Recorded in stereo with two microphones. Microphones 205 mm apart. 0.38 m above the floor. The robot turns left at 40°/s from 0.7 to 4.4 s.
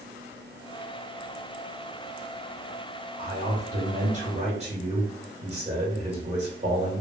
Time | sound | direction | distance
3.2 | a man speaking | 80° right | 1.8 m